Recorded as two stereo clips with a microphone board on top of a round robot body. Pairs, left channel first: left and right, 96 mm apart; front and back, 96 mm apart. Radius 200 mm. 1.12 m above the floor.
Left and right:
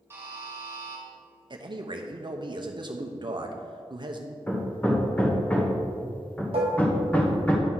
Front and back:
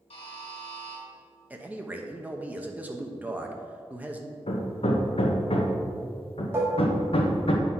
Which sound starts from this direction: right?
A man speaking, at 1.5 s.